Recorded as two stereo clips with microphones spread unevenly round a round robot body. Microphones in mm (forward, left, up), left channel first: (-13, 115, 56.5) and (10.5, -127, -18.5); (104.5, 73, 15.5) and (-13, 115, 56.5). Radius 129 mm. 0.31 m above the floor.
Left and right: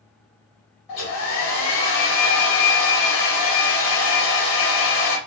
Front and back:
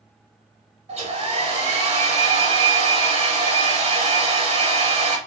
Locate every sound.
0.9 s a hair dryer: 125° left, 1.9 m